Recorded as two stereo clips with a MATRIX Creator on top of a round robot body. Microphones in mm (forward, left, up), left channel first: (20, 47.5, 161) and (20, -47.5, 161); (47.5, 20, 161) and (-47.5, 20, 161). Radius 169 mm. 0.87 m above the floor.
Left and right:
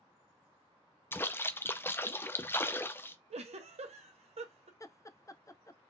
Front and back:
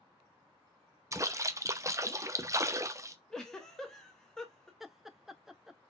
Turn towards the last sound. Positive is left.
turn(degrees=95)